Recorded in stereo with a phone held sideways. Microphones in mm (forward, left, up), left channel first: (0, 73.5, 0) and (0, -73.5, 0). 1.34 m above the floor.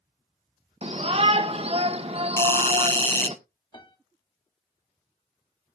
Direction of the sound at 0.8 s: 45° right (ahead or behind).